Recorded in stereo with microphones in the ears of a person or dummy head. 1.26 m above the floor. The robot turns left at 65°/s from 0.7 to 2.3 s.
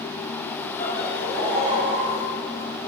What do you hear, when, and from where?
0.8 s laughter: 40° left, 1.6 m; by 2.2 s 50° right, 1.6 m